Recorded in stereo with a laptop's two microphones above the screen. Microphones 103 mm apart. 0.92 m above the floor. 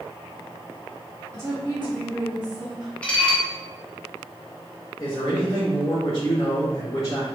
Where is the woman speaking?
30° right (ahead or behind), 1.9 m; by 2.9 s 5° right (ahead or behind), 2.5 m.